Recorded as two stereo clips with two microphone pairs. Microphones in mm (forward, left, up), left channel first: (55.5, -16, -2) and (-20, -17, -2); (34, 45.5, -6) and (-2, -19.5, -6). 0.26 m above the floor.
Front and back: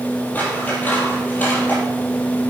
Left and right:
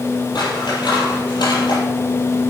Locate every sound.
0.3 s scissors: 70° left, 5 m